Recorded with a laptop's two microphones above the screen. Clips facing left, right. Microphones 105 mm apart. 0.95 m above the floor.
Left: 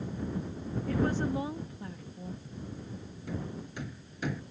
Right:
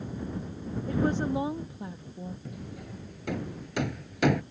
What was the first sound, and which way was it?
A woman speaking, 25° right (ahead or behind).